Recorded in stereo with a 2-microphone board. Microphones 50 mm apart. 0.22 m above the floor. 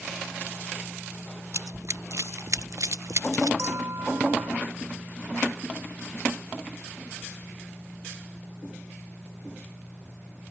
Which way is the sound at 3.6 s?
70° right (ahead or behind).